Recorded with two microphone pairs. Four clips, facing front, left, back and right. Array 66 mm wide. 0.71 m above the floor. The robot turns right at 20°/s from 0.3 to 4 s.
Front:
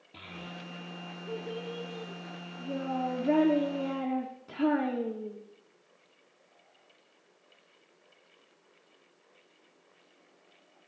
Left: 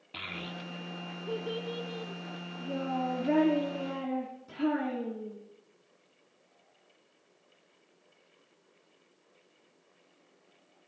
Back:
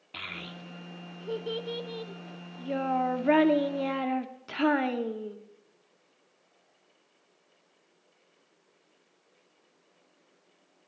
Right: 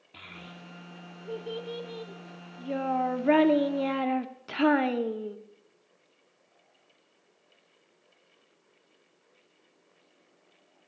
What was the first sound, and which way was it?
A child speaking, 160° left.